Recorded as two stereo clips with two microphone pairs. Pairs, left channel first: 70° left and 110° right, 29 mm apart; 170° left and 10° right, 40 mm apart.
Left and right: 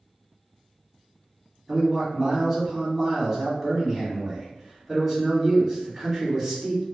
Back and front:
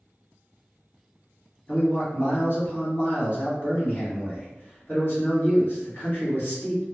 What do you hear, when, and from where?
1.7 s a man speaking: 170° left, 1.6 m